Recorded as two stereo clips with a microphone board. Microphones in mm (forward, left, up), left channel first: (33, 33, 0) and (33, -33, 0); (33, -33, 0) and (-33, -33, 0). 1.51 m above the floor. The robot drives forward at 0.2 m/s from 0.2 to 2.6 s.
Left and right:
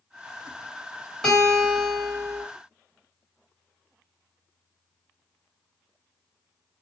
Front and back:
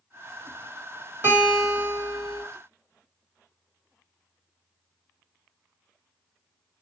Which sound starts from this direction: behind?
A guitar, at 1.2 s.